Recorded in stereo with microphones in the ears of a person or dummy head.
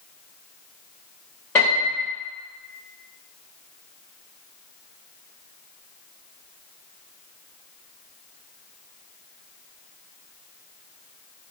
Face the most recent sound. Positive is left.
turn(degrees=10)  # may be behind; listen again after turning